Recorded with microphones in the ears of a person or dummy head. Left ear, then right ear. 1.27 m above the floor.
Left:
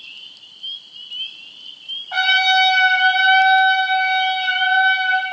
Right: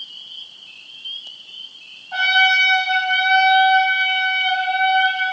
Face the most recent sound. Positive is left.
turn(degrees=85)